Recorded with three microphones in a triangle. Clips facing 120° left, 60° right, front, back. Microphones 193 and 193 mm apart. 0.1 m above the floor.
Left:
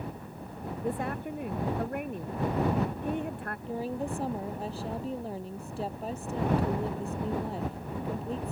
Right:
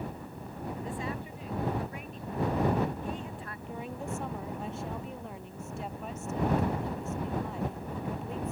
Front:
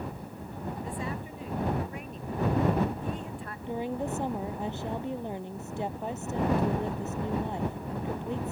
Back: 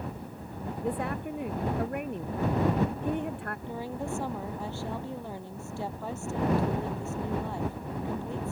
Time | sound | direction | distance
0.8 | a woman speaking | 155° left | ?
3.7 | a woman speaking | 70° left | ?